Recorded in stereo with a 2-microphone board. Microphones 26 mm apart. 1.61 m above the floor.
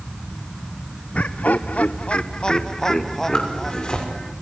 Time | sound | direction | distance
1.1 | laughter | 60° left (ahead or behind) | 0.9 m
3.3 | a zipper | 35° left (ahead or behind) | 5.5 m